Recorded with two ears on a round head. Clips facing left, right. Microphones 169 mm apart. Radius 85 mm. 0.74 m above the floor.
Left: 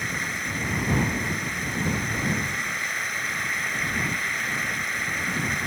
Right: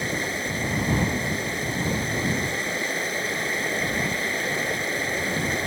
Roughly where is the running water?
Right.